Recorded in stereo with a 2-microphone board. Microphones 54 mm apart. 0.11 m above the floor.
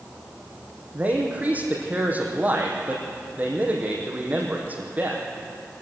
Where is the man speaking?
25° right (ahead or behind), 4 m.